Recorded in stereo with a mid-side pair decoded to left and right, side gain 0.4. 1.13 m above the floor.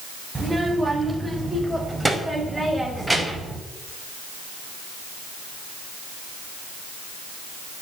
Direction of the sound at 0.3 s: 15° right.